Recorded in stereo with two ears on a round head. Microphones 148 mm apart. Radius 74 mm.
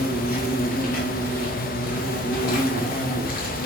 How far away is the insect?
About 2.5 m.